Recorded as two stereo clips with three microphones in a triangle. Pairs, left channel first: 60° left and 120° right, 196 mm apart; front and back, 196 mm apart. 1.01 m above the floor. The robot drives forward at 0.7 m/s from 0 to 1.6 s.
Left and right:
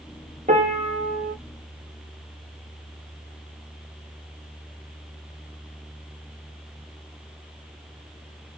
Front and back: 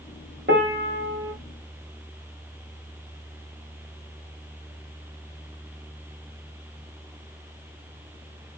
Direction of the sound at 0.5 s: 165° right.